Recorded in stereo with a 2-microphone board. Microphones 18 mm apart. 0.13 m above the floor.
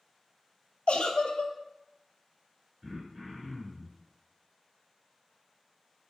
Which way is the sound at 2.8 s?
30° right (ahead or behind).